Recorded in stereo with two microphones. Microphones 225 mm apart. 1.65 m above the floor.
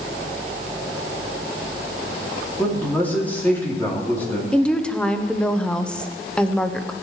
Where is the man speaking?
10° left (ahead or behind), 3 m.